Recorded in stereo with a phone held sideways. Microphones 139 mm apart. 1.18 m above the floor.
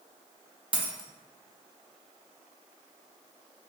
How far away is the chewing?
I don't hear chewing.